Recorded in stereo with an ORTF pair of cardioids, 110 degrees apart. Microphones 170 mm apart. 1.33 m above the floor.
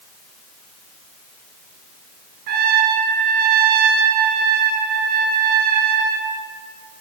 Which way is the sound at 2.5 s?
65° right.